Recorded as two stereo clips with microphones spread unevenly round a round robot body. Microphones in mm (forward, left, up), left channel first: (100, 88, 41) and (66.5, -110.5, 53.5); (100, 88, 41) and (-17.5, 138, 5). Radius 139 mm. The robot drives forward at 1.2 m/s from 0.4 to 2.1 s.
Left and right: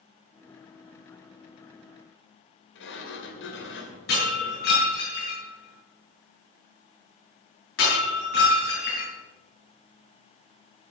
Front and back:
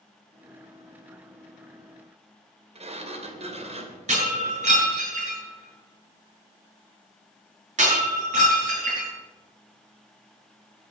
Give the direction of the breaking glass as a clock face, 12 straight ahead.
8 o'clock.